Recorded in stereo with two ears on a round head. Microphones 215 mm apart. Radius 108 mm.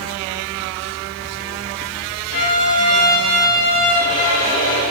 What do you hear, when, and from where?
2.3 s a violin: 80° left, 3 m